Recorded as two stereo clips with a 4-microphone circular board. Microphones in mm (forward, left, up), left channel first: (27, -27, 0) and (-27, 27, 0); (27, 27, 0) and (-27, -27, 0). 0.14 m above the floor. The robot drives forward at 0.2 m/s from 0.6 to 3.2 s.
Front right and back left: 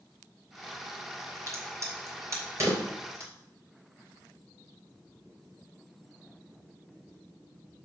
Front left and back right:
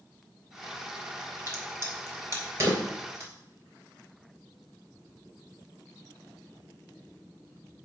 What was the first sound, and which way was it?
A crack, 175° left.